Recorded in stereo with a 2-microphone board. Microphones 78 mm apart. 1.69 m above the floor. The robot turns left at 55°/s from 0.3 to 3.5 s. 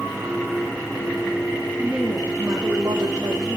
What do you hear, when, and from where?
1.8 s a woman speaking: 10° right, 4.5 m; by 3.6 s 100° right, 4.5 m